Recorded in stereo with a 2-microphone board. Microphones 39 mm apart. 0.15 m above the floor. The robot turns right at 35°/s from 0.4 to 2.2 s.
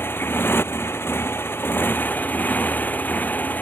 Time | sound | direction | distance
0.0 | a motorcycle | 65° left | ?